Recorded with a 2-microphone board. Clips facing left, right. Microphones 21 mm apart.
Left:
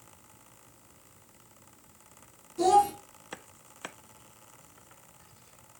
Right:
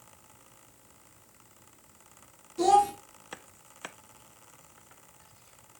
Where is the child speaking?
15° right (ahead or behind), 0.7 m.